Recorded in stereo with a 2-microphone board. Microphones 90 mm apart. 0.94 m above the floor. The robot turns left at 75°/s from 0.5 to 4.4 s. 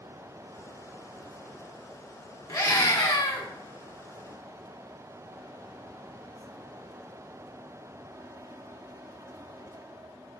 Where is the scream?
135° left, 1.6 m; by 3.5 s 60° left, 1.6 m.